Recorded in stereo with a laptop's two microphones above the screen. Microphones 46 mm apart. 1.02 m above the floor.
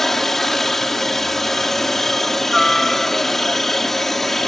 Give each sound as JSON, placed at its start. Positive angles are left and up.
{"t": 0.0, "sound": "a helicopter", "side_deg": 5}